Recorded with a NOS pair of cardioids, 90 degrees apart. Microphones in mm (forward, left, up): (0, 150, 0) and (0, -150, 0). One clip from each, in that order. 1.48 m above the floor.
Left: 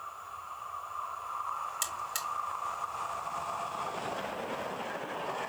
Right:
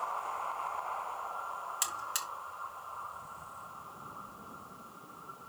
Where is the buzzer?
10° right, 2.5 m.